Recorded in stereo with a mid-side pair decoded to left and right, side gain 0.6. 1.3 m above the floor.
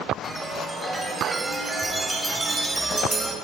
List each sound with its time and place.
0.2 s a chime: 10° right, 5 m